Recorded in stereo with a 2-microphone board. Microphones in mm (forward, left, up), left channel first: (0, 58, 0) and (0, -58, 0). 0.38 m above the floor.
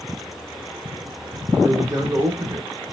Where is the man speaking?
30° right (ahead or behind), 1.1 m.